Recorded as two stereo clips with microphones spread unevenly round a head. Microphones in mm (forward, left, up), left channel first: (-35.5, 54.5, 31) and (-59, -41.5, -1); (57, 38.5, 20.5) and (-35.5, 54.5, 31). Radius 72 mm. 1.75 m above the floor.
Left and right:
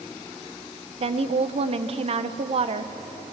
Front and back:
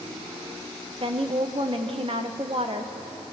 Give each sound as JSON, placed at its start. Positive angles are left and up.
{"t": 1.0, "sound": "a woman speaking", "azimuth_deg": -130, "distance_m": 1.5}